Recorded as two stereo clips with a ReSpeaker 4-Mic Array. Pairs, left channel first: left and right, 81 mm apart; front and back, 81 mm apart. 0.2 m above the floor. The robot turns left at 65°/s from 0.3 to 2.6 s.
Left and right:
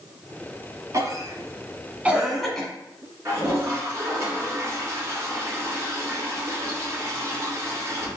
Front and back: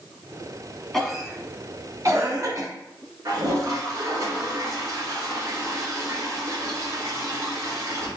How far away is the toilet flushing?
About 1.8 m.